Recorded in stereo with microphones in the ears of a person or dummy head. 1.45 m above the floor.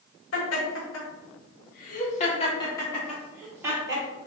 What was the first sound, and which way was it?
Laughter, 80° left.